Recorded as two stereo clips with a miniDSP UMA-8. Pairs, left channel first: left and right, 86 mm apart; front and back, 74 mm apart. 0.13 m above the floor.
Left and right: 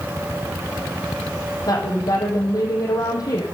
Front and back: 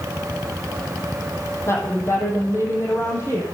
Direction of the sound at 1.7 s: 50° left.